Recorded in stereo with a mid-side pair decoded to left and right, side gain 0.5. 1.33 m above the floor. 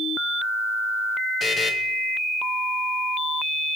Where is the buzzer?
30° left, 1.2 m.